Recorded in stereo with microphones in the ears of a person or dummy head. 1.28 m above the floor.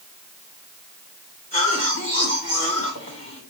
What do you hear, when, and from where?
1.5 s a cough: 45° left (ahead or behind), 4.5 m